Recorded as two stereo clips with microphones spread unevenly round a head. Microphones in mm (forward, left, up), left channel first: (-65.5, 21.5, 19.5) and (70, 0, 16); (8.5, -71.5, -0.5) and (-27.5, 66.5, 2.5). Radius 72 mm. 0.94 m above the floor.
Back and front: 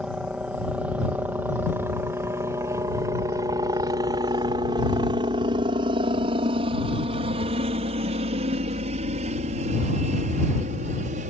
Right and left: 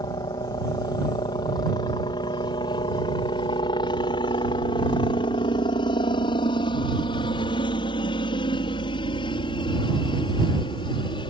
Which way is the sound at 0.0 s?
85° right.